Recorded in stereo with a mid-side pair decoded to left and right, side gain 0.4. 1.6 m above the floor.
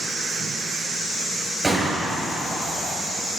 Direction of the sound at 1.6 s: 20° right.